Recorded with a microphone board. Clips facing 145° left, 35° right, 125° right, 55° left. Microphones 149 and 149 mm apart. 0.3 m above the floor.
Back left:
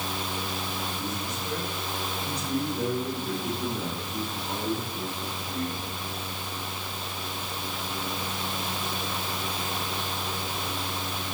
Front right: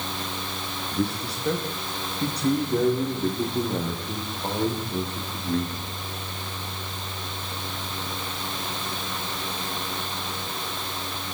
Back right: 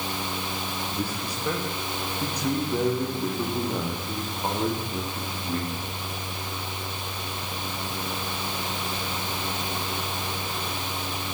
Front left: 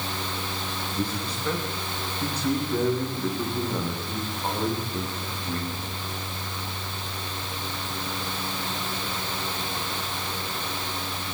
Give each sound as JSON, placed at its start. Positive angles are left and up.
{"t": 0.9, "sound": "a man speaking", "azimuth_deg": -45, "distance_m": 9.0}